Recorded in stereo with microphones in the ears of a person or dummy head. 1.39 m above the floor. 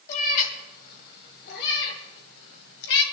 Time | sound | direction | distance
0.1 | a cat meowing | 50° left (ahead or behind) | 2.5 m